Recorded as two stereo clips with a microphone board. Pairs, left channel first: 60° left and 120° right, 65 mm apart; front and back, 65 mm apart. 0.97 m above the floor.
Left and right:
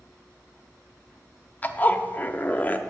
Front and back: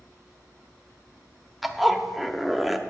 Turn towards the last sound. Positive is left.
turn(degrees=95)